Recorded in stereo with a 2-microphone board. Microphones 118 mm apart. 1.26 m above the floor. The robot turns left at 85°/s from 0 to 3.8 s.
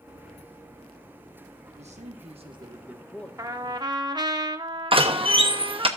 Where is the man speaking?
70° right, 1.5 m; by 3.3 s 165° left, 1.5 m.